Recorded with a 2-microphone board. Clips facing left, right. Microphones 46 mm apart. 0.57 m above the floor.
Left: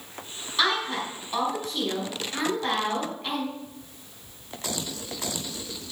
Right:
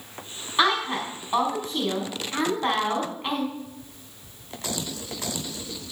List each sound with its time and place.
0.6 s a woman speaking: 25° right (ahead or behind), 4.5 m